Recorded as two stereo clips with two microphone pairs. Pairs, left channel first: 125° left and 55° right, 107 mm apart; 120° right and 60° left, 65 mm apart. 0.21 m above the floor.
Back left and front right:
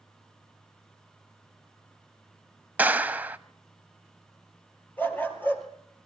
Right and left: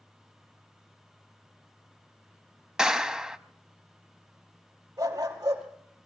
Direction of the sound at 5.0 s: 55° left.